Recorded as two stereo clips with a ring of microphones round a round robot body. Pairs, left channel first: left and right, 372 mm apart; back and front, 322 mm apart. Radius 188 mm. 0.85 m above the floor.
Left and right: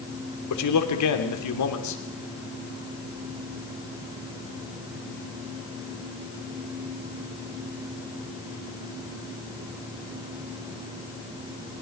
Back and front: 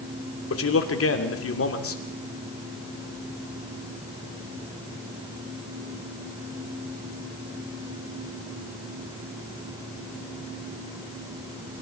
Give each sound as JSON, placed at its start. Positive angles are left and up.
{"t": 0.5, "sound": "a man speaking", "azimuth_deg": 135, "distance_m": 3.0}